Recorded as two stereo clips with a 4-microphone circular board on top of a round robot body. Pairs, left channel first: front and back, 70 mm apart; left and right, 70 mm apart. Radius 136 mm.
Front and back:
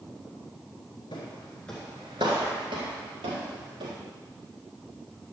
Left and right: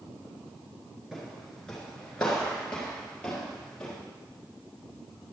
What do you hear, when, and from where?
1.1 s footsteps: 5° right, 1.2 m; by 4.0 s 170° left, 3 m